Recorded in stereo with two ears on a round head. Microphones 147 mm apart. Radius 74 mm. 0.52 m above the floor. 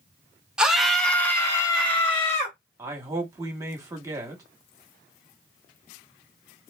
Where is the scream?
5° right (ahead or behind), 1.1 m; by 2.6 s 40° left (ahead or behind), 1.3 m.